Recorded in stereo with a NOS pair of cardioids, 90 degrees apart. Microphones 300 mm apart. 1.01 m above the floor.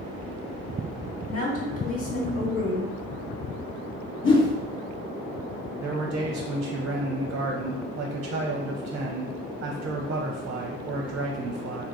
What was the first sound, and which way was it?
A woman speaking, 50° left.